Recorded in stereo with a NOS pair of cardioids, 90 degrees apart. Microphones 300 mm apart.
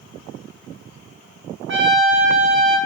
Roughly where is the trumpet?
Ahead right.